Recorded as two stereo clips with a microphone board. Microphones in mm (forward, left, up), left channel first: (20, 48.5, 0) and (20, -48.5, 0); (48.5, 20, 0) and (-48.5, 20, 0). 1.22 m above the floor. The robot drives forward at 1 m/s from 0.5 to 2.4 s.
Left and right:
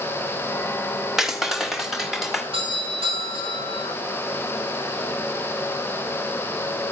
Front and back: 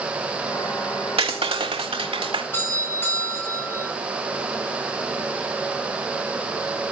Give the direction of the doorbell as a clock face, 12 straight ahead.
2 o'clock.